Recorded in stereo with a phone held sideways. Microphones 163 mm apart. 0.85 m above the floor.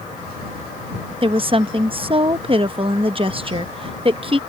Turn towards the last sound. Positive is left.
turn(degrees=-35)  # may be behind; listen again after turning